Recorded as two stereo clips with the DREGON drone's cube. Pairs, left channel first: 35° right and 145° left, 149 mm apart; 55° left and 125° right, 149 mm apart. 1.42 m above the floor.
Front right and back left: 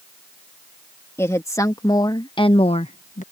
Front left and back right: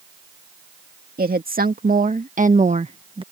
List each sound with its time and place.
1.2 s a woman speaking: 105° right; by 3.2 s 65° right